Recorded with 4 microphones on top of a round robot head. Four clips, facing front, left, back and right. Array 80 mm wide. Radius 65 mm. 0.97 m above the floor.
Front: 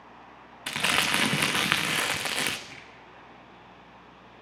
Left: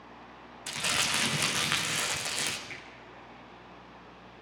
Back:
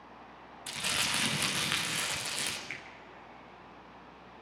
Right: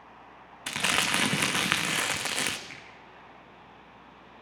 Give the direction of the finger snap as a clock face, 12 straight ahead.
6 o'clock.